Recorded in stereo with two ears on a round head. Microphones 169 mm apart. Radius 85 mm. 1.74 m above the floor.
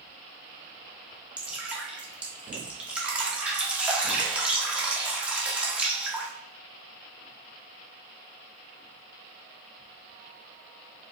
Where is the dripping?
5° right (ahead or behind), 0.8 m.